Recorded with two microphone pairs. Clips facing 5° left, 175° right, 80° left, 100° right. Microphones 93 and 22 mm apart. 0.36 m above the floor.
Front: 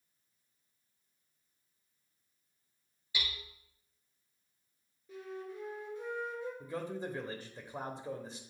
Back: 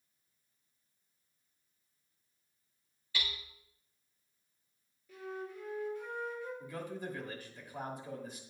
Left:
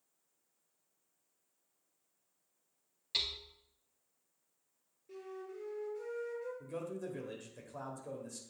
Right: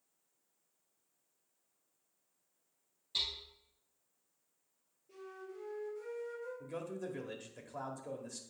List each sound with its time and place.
3.1 s hammering: 80° left, 1.7 m
5.1 s a flute: 65° left, 3.5 m
6.6 s a man speaking: 30° right, 1.1 m